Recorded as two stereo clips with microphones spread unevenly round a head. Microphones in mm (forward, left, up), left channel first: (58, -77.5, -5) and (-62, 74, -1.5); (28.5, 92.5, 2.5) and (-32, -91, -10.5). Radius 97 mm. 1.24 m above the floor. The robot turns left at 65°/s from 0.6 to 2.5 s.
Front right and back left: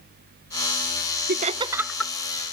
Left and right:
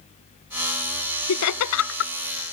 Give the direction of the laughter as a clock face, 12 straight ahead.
9 o'clock.